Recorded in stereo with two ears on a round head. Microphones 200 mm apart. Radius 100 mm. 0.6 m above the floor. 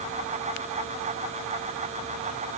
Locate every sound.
Only background noise.